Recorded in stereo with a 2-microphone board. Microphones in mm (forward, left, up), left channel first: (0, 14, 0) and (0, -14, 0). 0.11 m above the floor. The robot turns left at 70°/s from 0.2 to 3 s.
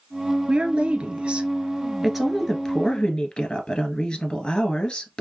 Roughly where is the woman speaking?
Ahead right.